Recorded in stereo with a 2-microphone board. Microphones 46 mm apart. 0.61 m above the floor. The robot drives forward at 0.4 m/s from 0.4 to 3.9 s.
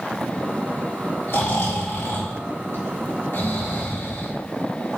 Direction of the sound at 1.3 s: 60° left (ahead or behind).